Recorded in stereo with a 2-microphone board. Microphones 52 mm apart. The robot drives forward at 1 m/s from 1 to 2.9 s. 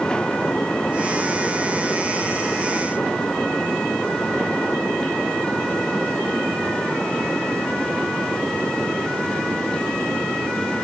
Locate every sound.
Only background noise.